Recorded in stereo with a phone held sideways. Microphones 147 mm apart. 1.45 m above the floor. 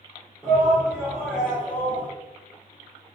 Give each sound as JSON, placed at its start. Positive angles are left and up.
{"t": 0.4, "sound": "a shout", "side_deg": 0, "distance_m": 1.5}